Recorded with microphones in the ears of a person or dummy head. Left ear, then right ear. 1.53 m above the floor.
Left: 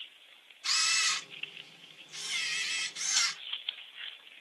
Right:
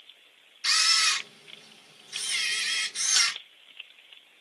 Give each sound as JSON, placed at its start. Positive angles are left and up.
{"t": 0.6, "sound": "a camera shutter", "side_deg": -55, "distance_m": 1.4}